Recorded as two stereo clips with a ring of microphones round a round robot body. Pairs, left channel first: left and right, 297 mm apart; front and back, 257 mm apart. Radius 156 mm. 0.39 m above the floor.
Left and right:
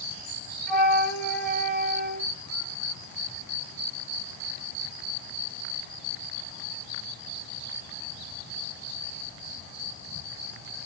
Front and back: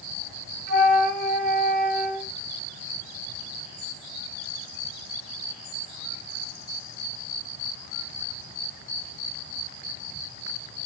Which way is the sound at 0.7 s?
Straight behind.